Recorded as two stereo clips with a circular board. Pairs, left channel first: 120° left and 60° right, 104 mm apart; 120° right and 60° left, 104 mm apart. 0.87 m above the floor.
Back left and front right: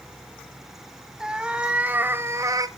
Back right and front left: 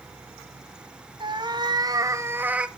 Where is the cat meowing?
25° left, 1.4 m; by 2.7 s 20° right, 0.8 m.